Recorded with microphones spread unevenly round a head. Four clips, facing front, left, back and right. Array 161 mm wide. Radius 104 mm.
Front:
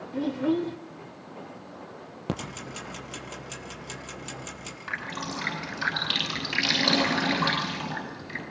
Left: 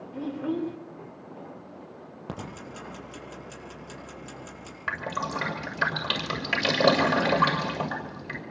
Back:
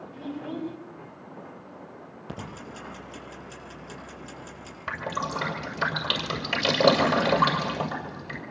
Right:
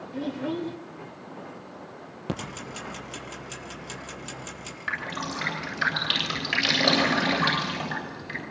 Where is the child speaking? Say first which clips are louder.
Even, front 9 dB; 15° left, 3 m.